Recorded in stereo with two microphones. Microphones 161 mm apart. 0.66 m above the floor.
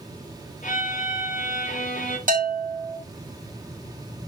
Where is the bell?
55° right (ahead or behind), 3 m.